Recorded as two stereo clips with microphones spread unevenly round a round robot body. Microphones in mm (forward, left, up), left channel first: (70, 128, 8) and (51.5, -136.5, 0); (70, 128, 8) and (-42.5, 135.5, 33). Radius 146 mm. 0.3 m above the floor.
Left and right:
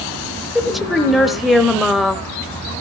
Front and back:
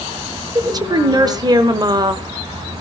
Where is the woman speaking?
Straight behind, 0.9 m.